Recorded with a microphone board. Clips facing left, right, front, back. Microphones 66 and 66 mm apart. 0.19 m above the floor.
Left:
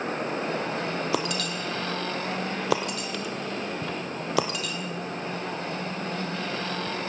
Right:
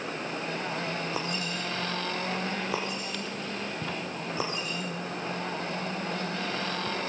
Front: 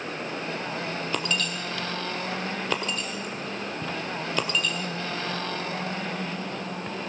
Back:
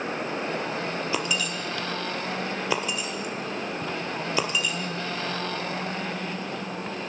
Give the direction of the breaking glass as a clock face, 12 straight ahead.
9 o'clock.